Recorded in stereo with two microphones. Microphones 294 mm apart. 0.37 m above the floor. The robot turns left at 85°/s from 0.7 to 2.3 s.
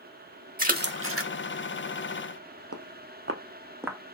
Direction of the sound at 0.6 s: 30° right (ahead or behind).